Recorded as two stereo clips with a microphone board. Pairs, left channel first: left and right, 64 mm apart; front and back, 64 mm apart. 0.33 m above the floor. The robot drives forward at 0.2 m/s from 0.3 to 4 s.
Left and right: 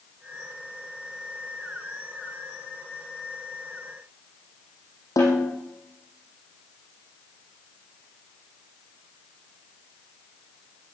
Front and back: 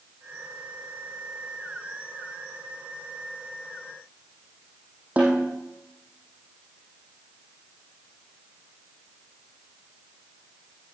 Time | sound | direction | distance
5.2 | a snare drum | 115° left | 6.5 m